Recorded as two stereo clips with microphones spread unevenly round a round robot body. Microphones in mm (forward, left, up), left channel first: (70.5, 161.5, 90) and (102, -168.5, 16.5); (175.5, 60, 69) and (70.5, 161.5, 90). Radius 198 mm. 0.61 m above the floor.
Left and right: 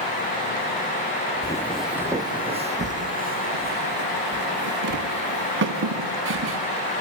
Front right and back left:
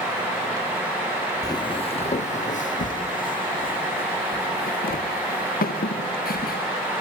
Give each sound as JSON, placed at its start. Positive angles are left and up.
{"t": 1.4, "sound": "footsteps", "azimuth_deg": 25, "distance_m": 1.1}